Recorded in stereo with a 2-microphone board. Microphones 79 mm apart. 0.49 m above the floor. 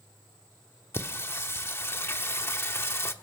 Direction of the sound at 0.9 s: 30° left (ahead or behind).